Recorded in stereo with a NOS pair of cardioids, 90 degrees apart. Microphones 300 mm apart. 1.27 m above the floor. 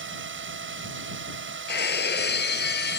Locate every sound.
0.0 s a drone: 40° right
1.7 s breaking glass: 35° left